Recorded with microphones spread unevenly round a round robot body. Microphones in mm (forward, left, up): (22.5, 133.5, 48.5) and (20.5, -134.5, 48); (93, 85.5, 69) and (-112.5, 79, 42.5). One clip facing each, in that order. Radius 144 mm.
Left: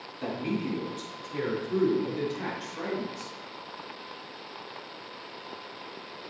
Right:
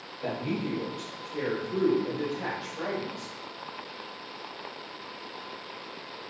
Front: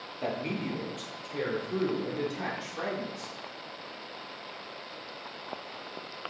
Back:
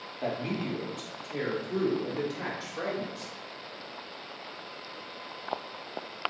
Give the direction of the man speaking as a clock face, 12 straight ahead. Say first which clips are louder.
Left 1 dB, back 1 dB; 9 o'clock.